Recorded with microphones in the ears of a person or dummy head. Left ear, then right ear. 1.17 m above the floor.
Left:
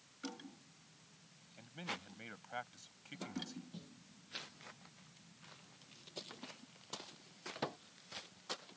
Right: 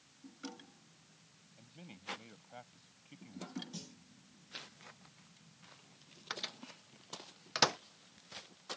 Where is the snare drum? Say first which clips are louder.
Right 7 dB; 55° right (ahead or behind).